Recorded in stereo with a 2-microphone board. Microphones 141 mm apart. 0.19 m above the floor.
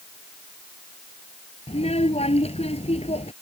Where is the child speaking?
45° left (ahead or behind).